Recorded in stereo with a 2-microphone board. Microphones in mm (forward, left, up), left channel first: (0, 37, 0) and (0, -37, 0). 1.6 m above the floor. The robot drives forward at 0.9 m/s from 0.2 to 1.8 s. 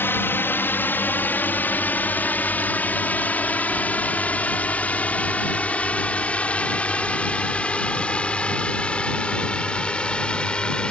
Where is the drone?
30° left (ahead or behind); by 10.9 s 15° left (ahead or behind).